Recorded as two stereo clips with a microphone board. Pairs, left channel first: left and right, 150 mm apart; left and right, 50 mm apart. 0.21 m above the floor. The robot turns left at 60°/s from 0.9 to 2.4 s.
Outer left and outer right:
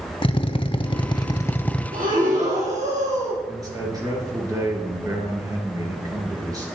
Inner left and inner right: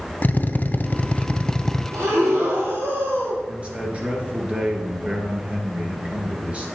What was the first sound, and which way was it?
A drill, 65° left.